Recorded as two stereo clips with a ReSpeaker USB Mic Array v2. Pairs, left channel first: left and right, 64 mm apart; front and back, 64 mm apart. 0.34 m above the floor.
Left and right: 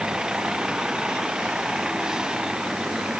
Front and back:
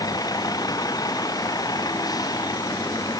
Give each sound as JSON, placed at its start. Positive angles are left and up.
{"t": 0.0, "sound": "a vehicle", "azimuth_deg": -10}